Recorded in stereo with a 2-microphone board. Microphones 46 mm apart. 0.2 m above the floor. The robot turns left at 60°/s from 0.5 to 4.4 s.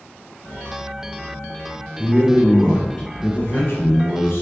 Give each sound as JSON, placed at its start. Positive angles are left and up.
{"t": 2.0, "sound": "a man speaking", "azimuth_deg": -145, "distance_m": 2.5}